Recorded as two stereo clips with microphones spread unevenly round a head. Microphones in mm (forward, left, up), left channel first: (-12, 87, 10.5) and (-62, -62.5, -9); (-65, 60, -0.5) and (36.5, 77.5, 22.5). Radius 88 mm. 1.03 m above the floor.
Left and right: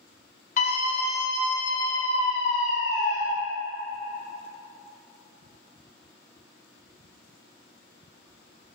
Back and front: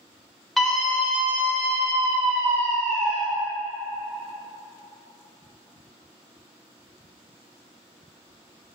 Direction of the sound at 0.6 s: 100° left.